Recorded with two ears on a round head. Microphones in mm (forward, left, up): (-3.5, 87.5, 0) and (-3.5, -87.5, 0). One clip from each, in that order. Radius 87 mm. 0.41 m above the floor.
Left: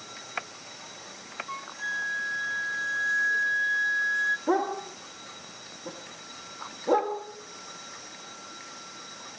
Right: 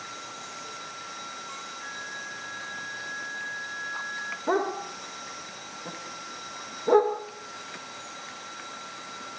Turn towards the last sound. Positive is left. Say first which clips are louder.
# even
turn(degrees=-15)  # may be behind; listen again after turning